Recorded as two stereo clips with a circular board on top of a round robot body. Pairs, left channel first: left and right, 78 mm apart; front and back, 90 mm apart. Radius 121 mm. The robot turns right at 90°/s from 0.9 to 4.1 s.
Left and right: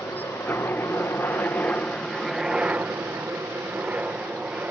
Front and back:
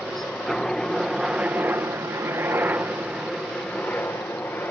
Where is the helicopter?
85° left; by 4.7 s 45° right.